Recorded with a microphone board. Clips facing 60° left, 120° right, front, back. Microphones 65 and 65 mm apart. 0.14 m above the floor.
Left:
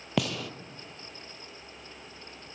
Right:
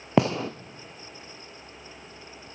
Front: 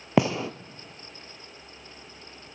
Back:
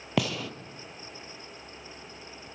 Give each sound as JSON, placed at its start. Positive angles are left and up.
{"t": 0.2, "sound": "a gunshot", "azimuth_deg": -65, "distance_m": 0.6}